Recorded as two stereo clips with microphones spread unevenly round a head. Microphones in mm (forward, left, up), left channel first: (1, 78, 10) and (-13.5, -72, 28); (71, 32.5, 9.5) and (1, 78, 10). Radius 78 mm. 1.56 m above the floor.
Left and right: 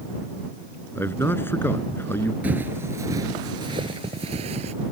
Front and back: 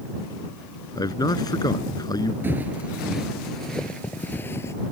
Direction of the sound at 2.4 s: 155° right.